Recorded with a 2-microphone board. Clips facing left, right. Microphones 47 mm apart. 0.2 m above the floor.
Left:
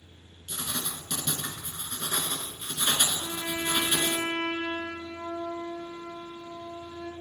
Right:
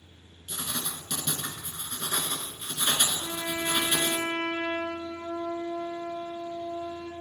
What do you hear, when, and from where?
0.5 s writing: 5° right (ahead or behind), 0.8 m
3.2 s a trumpet: 15° right (ahead or behind), 1.9 m